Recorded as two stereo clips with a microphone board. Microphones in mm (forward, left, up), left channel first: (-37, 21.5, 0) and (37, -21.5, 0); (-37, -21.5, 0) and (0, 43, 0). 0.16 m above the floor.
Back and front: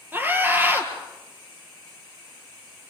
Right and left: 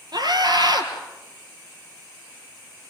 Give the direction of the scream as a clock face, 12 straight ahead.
11 o'clock.